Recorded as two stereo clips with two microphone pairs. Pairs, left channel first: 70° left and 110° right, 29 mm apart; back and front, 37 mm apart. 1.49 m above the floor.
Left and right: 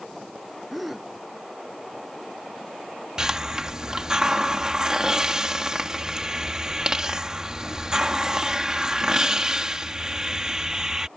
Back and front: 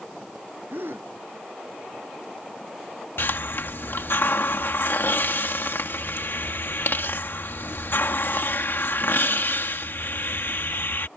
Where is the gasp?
20° right.